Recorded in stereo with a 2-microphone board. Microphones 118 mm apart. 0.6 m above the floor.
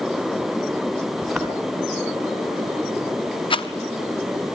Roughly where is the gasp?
I don't hear a gasp.